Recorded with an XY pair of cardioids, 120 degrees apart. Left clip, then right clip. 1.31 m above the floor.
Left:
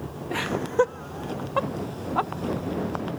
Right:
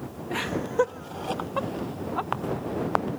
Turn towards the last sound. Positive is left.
turn(degrees=30)